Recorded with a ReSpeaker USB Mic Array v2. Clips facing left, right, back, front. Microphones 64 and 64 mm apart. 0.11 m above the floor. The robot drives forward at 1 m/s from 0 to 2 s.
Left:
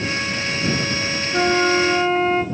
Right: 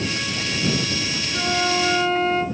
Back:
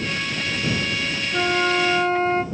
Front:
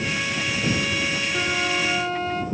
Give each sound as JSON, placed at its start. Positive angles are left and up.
{"t": 1.3, "sound": "a flute", "azimuth_deg": 120, "distance_m": 1.5}